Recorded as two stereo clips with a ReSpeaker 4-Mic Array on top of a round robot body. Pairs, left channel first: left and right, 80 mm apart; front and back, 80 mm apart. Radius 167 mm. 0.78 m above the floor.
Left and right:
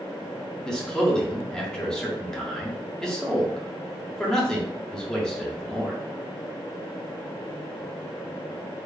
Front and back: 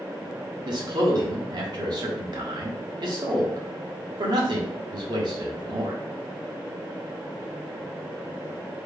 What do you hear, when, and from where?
0.7 s a man speaking: 170° left, 1.4 m